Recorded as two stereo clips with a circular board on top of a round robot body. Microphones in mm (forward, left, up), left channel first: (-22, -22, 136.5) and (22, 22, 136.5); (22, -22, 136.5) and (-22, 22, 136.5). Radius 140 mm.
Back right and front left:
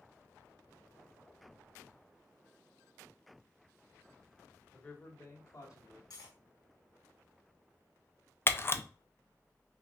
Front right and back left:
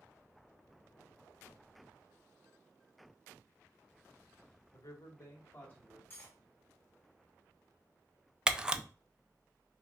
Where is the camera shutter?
155° right, 0.6 m.